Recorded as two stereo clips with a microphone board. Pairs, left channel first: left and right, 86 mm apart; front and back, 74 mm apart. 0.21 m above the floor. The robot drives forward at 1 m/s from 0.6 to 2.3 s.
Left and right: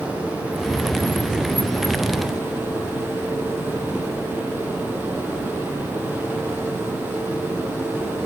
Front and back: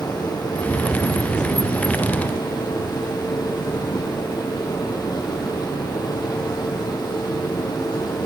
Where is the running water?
20° right, 8 m; by 8.3 s 25° right, 6.5 m.